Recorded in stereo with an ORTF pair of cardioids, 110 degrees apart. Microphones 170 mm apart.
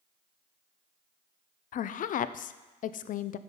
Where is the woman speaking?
50° left, 0.6 m.